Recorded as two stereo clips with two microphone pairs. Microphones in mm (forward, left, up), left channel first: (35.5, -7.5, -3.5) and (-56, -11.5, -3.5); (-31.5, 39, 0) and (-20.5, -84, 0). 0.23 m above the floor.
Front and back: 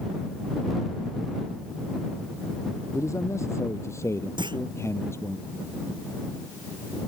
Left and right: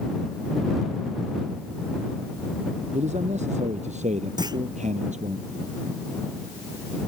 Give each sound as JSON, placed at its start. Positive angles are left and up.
{"t": 2.9, "sound": "a man speaking", "azimuth_deg": -55}
{"t": 4.4, "sound": "a clunk", "azimuth_deg": -140}